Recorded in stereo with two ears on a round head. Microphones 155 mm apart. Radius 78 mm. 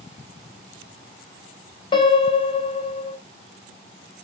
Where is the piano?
30° left (ahead or behind), 0.8 m.